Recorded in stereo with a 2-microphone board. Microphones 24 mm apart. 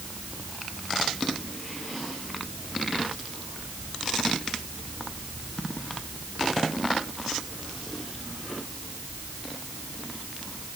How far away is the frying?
No frying in this recording.